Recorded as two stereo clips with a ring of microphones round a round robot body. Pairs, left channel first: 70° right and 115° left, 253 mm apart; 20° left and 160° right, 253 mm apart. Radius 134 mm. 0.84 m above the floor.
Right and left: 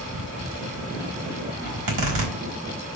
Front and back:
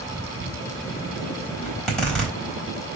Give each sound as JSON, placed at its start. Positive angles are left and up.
{"t": 1.6, "sound": "a zipper", "azimuth_deg": 110, "distance_m": 4.0}